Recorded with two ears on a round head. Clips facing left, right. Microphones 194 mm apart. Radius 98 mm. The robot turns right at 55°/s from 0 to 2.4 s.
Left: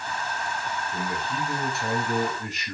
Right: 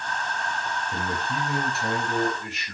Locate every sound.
0.9 s a man speaking: 45° right, 4.5 m; by 2.8 s 35° left, 4.5 m